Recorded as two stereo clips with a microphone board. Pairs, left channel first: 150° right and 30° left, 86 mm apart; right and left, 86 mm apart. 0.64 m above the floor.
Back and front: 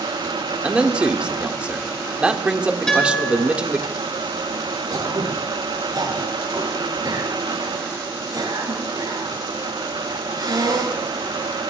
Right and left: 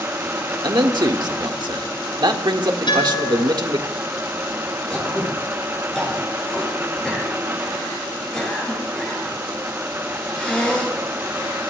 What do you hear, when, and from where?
0.6 s a man speaking: 105° left, 1.4 m
2.9 s a guitar: 70° right, 7.5 m
4.9 s throat clearing: 5° right, 8.5 m